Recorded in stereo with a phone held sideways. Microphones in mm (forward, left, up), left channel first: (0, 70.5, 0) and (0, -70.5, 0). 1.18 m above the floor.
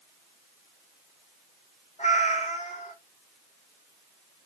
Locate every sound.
2.0 s a cat meowing: 50° left (ahead or behind), 1.1 m